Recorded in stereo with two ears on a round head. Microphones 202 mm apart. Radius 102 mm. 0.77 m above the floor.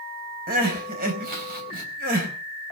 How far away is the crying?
About 4 m.